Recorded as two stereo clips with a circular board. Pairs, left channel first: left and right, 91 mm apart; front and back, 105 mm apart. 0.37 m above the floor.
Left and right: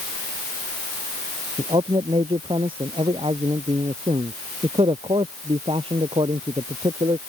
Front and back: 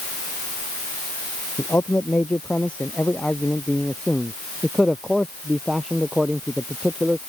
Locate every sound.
1.6 s a man speaking: 70° right; by 7.2 s 100° right